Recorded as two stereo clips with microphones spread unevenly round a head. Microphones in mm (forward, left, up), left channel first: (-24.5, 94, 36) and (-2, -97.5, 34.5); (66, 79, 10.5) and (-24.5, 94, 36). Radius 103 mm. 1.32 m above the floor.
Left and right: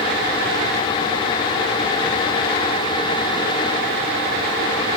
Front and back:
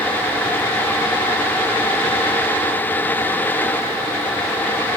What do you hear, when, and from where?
Only background noise.